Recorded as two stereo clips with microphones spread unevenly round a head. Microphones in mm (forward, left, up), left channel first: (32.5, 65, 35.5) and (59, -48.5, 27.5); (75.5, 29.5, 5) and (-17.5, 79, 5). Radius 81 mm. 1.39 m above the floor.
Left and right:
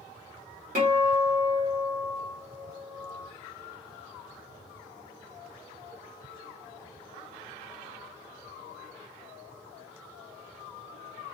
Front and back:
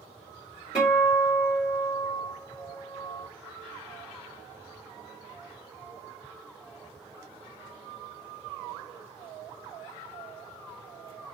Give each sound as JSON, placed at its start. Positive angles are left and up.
{"t": 0.8, "sound": "a guitar", "azimuth_deg": -70, "distance_m": 1.3}